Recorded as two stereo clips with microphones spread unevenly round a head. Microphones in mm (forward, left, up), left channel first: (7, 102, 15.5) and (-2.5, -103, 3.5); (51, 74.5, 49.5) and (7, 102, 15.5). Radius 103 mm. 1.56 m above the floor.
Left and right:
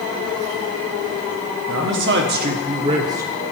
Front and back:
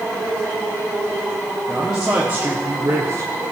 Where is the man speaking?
120° right, 1.4 m; by 3.3 s 170° right, 1.2 m.